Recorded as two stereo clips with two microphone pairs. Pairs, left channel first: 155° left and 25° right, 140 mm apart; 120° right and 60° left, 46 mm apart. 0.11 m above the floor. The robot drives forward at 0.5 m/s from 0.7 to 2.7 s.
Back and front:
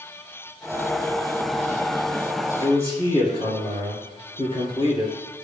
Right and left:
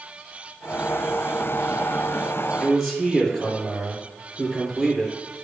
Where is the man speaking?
150° left, 2.0 m.